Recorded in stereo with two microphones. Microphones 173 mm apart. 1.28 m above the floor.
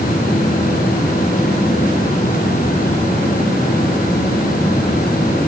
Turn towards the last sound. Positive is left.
No sound to turn to.